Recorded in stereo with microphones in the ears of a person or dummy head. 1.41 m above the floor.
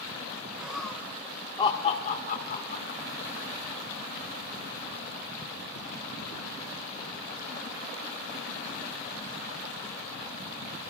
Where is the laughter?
5° right (ahead or behind), 1.6 m; by 3.0 s 55° left (ahead or behind), 2.5 m.